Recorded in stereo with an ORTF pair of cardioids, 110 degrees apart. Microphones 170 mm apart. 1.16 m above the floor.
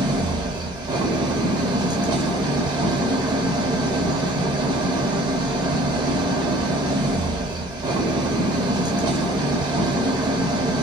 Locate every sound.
0.0 s an engine running: 25° right, 0.8 m